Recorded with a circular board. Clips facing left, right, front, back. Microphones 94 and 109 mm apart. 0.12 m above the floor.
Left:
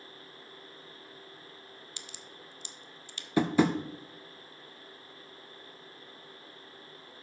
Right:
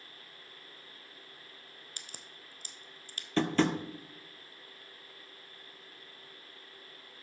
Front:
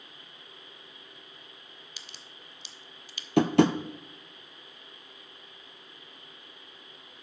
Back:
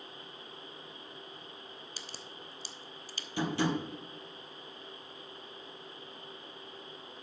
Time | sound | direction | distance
2.0 | a crack | 130° right | 0.6 m
3.4 | tapping | 10° left | 0.7 m